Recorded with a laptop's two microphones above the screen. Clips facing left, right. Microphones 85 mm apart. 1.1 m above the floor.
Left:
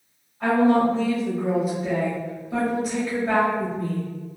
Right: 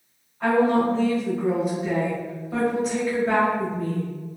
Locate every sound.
0.4 s a woman speaking: centre (ahead or behind), 1.3 m